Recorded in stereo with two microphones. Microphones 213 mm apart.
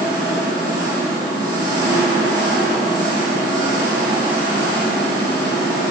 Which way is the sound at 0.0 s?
20° right (ahead or behind).